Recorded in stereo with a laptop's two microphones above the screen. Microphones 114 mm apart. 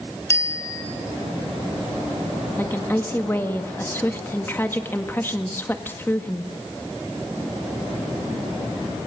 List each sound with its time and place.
0.3 s a bicycle bell: 20° left (ahead or behind), 3.5 m
2.6 s a woman speaking: 15° left (ahead or behind), 1.7 m